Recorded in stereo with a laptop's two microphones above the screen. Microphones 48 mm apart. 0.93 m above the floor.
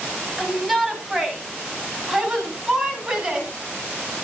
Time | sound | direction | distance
0.4 | a shout | centre (ahead or behind) | 5.5 m